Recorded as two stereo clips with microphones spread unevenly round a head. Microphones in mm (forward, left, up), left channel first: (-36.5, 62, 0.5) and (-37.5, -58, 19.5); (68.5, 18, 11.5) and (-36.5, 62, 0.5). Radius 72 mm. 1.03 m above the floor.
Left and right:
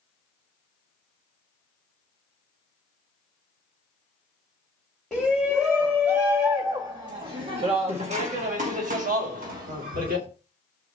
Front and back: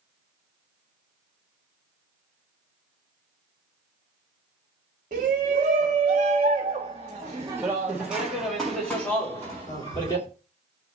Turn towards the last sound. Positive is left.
turn(degrees=-85)